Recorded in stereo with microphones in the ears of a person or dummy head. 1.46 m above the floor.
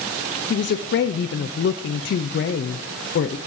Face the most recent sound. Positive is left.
turn(degrees=55)  # may be behind; listen again after turning